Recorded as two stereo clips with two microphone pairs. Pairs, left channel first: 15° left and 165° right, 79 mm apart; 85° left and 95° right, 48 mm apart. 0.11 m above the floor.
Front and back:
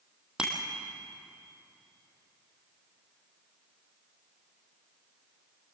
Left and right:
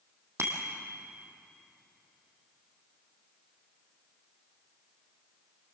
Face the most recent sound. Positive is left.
turn(degrees=-85)